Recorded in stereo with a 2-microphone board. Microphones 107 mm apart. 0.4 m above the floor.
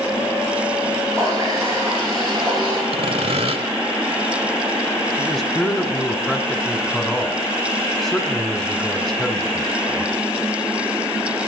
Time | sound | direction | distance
1.1 | a running tap | 5° left (ahead or behind) | 8 m
2.9 | sawing | 75° right (ahead or behind) | 1.4 m
5.2 | a man speaking | 5° left (ahead or behind) | 1.0 m